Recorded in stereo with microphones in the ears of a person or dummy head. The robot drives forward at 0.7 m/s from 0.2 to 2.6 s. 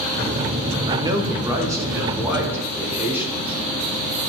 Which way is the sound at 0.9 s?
25° right (ahead or behind).